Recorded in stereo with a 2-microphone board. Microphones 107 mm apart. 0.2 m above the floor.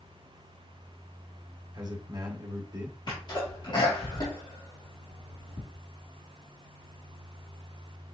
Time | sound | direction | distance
1.7 | a man speaking | 45° right (ahead or behind) | 1.4 m
3.1 | a sneeze | 50° left (ahead or behind) | 3 m